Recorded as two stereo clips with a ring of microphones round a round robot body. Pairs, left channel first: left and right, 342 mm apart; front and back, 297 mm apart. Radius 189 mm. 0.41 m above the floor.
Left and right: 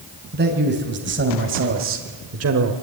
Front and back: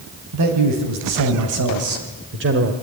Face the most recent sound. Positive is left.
turn(degrees=-125)